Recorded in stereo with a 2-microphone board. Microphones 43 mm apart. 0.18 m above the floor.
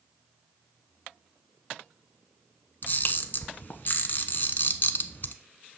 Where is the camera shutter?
45° left (ahead or behind), 1.1 m.